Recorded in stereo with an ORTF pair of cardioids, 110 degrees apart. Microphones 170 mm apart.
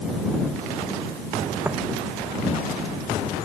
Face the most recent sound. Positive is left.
turn(degrees=-10)